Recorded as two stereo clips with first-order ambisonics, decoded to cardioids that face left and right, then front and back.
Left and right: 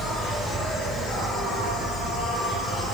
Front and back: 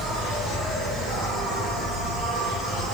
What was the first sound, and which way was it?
An insect, 175° left.